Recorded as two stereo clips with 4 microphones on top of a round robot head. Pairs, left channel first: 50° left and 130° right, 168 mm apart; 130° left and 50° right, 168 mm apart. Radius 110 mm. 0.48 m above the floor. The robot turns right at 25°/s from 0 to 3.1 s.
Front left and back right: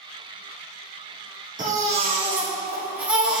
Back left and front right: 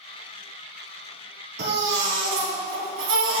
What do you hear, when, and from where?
1.6 s a baby crying: 80° right, 2.0 m; by 3.4 s 45° right, 2.0 m